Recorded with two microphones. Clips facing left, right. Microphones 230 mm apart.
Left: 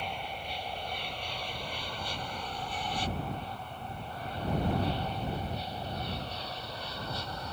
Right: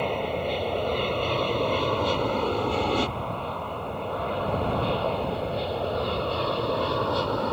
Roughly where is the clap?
I don't hear a clap.